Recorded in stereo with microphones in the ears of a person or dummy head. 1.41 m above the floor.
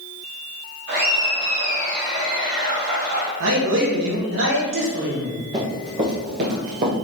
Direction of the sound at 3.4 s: 70° right (ahead or behind).